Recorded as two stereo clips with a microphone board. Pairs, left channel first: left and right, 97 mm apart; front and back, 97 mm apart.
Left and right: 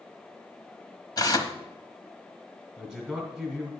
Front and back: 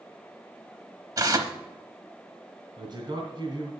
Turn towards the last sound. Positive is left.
turn(degrees=170)